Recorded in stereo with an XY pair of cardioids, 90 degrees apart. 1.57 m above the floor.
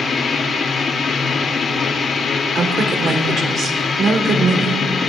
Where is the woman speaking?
60° right, 1.6 m.